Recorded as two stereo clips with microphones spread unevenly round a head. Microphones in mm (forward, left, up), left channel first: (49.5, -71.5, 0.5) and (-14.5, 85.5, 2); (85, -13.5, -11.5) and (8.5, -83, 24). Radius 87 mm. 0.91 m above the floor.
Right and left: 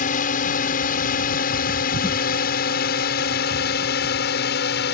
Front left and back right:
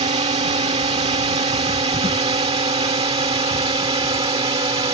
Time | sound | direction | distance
0.0 | a drone | 115° right | ?